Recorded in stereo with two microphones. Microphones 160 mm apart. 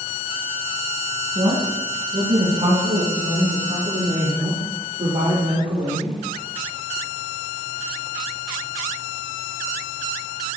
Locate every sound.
1.4 s a woman speaking: 50° right (ahead or behind), 4 m